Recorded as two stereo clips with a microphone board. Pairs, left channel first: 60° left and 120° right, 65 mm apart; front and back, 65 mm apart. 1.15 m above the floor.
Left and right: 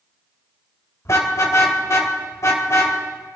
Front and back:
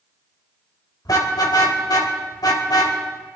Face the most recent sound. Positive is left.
turn(degrees=20)